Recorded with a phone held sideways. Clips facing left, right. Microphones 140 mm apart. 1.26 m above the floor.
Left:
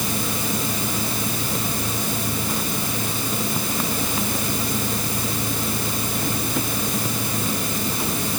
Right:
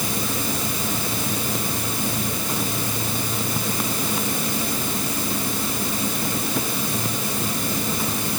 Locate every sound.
Only background noise.